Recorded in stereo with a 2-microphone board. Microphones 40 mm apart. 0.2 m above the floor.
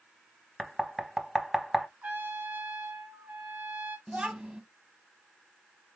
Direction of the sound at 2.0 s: 45° right (ahead or behind).